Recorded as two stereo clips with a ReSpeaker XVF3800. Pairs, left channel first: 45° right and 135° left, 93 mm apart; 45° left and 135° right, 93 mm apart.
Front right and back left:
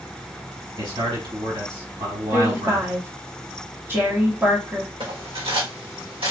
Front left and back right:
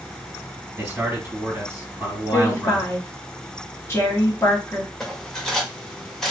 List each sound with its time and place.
0.8 s a man speaking: 155° left, 2.5 m
2.3 s a woman speaking: 85° left, 1.3 m
5.0 s cutlery clinking: 130° left, 1.3 m